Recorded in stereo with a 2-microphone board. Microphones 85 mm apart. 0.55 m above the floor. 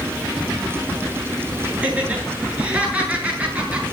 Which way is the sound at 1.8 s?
15° right (ahead or behind).